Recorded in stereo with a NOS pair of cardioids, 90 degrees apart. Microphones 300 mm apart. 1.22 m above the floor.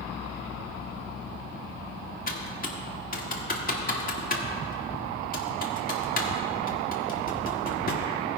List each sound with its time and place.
2.3 s typing on a keyboard: 30° left, 1.6 m